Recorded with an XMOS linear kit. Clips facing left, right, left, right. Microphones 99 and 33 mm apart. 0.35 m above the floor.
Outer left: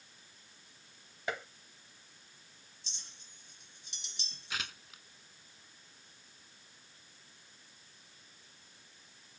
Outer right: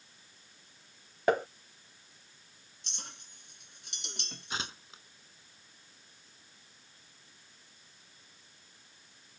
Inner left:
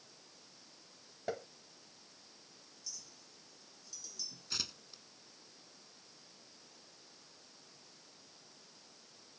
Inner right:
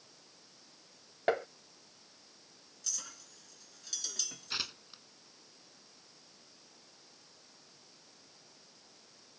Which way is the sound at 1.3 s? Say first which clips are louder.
Outer right 12 dB, inner right 10 dB; 50° right (ahead or behind).